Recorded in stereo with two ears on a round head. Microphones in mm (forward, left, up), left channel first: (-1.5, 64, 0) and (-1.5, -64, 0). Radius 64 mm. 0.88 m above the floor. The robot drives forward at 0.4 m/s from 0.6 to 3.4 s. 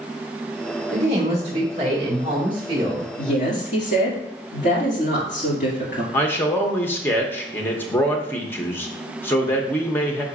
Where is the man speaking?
15° left (ahead or behind), 0.6 m.